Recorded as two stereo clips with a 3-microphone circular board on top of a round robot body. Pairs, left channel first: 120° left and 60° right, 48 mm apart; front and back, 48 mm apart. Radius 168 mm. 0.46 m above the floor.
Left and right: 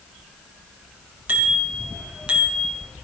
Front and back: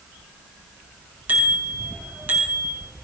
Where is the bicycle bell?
120° right, 5.5 m; by 2.7 s 130° right, 5 m.